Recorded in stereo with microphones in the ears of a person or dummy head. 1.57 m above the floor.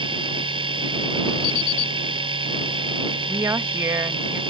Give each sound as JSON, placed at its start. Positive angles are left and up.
{"t": 0.0, "sound": "a machine running", "side_deg": -25}
{"t": 1.4, "sound": "an alarm clock", "side_deg": 60}
{"t": 3.3, "sound": "a woman speaking", "side_deg": -15}